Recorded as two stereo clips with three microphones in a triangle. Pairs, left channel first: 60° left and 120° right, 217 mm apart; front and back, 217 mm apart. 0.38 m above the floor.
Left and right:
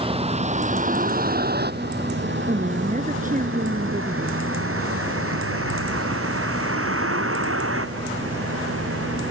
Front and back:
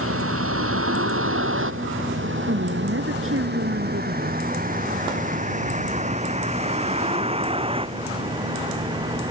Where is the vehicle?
175° left; by 9.3 s 110° right.